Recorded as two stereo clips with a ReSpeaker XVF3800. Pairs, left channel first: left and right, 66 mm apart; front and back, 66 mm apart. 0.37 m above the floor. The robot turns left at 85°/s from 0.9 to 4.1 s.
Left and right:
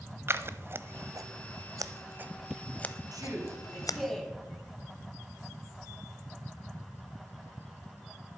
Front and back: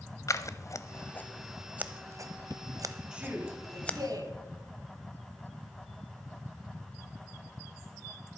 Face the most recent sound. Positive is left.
turn(degrees=175)